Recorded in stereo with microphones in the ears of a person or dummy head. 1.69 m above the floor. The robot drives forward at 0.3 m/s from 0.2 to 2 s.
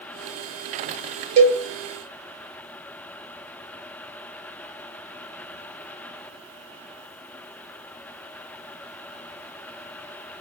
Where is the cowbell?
30° right (ahead or behind), 0.8 m.